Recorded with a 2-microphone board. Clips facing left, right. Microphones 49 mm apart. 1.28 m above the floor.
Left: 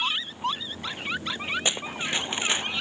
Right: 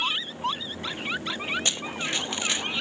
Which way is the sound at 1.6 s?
15° left (ahead or behind).